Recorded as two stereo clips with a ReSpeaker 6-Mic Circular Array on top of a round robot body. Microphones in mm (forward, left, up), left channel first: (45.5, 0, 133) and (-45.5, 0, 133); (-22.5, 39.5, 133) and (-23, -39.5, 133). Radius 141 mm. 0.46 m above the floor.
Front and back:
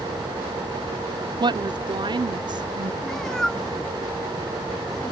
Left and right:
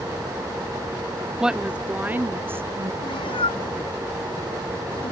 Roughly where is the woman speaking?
Behind.